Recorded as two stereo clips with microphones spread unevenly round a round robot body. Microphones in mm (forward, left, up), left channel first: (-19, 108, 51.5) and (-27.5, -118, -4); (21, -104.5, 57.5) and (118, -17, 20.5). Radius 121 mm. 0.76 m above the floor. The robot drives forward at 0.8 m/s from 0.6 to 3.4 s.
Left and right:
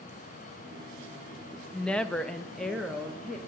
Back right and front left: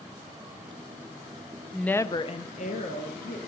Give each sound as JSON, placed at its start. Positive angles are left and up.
{"t": 1.7, "sound": "a woman speaking", "azimuth_deg": -20, "distance_m": 0.5}